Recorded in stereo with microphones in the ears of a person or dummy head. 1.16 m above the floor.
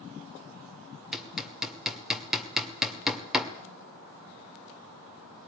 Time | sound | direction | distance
1.1 | hammering | centre (ahead or behind) | 1.5 m